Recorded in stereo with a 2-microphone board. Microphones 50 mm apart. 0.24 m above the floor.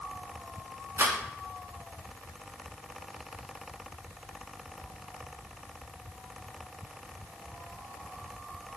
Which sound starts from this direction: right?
A rattle, at 1.0 s.